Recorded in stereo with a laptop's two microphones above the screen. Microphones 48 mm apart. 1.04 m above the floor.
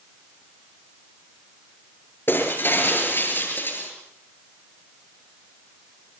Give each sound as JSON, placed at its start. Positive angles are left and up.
{"t": 2.3, "sound": "breaking glass", "side_deg": 50, "distance_m": 6.5}